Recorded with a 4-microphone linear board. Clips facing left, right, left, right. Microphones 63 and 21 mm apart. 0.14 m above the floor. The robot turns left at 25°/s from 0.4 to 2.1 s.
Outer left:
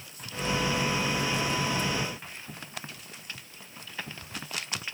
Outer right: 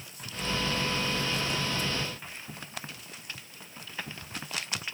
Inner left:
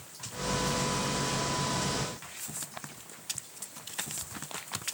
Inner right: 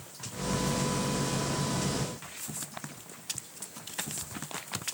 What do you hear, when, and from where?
Only background noise.